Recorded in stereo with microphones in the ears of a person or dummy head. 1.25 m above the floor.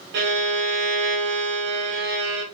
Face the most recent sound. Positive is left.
turn(degrees=-60)  # may be behind; listen again after turning